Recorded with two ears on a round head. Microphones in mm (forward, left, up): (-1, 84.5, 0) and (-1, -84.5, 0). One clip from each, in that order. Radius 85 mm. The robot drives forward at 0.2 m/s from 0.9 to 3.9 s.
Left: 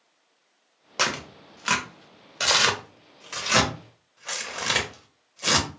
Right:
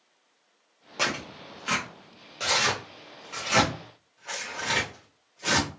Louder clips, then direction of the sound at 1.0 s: Left 2 dB; 40° left (ahead or behind).